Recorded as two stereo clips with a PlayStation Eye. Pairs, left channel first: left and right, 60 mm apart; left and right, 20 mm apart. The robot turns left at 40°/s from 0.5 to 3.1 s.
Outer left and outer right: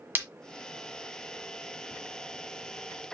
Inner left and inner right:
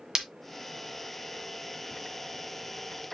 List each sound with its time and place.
0.1 s breaking glass: 35° right (ahead or behind), 1.6 m